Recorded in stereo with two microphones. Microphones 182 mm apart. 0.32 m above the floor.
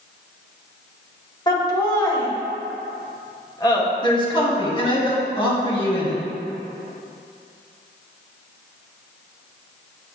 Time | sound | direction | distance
1.5 | laughter | 25° left (ahead or behind) | 1.3 m
4.0 | a man speaking | 25° left (ahead or behind) | 1.8 m